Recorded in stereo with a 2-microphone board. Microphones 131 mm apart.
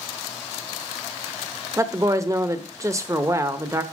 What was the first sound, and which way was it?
A woman speaking, 25° right (ahead or behind).